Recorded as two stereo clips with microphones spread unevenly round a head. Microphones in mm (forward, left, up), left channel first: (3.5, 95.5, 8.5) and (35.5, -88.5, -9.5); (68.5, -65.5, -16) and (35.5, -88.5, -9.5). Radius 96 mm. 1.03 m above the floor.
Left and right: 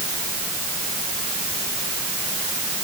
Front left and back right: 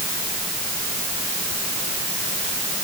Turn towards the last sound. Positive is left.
No sound to turn to.